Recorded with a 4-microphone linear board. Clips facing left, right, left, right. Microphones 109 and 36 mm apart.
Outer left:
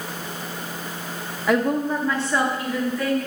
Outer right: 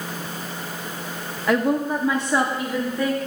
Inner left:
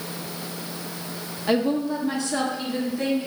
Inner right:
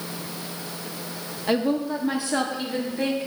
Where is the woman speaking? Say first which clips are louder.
Even, inner left 1 dB; centre (ahead or behind), 0.7 m; by 3.3 s 25° right (ahead or behind), 1.6 m.